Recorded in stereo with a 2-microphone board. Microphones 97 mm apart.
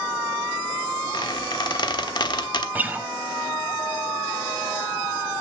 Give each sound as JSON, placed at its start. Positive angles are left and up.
{"t": 1.1, "sound": "a squeak", "side_deg": 50, "distance_m": 1.1}
{"t": 2.8, "sound": "a guitar", "side_deg": -15, "distance_m": 0.7}